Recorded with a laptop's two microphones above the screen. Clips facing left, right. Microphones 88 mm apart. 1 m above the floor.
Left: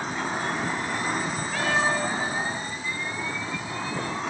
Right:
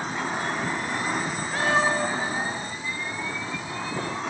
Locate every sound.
1.5 s a cat meowing: 35° right (ahead or behind), 2 m